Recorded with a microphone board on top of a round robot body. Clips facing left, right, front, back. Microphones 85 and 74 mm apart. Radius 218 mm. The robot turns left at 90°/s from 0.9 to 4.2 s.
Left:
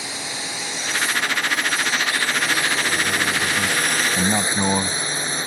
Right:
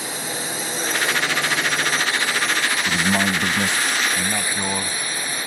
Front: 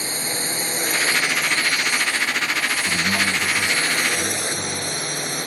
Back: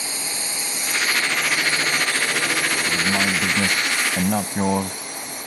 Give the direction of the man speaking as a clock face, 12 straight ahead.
3 o'clock.